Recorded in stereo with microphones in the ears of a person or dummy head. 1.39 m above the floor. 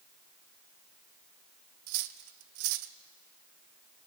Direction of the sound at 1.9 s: 55° right (ahead or behind).